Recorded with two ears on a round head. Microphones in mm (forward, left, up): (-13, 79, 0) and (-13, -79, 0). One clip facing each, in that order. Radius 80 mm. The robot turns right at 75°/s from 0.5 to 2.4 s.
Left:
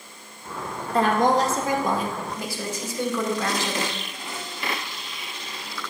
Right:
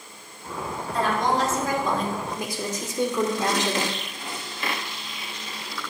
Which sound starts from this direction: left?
A woman speaking, at 0.9 s.